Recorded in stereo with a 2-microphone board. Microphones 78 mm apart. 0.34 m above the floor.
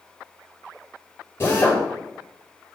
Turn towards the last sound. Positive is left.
turn(degrees=35)  # may be behind; listen again after turning